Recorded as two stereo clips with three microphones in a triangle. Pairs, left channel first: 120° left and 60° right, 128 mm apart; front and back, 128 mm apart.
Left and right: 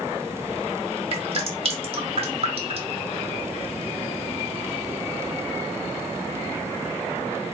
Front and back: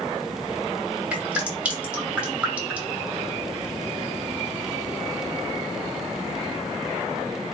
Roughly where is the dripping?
Right.